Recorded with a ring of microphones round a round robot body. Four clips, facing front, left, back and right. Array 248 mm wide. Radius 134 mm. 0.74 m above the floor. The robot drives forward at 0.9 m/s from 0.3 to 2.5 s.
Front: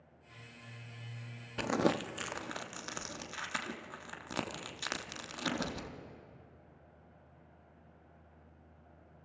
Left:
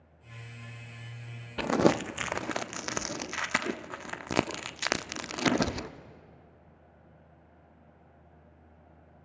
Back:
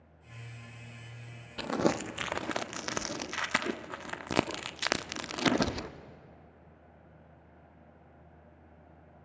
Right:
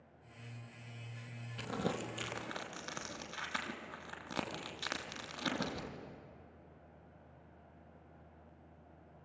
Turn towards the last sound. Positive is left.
turn(degrees=130)